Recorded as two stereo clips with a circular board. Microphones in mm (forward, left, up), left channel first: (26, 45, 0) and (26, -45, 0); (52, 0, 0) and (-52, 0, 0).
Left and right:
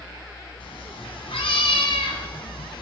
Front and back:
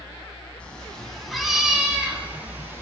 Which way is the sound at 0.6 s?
80° left.